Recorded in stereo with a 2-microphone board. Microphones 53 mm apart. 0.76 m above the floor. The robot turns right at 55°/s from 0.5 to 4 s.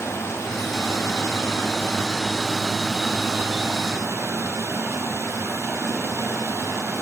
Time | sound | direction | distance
0.0 | running water | 65° left | 3.5 m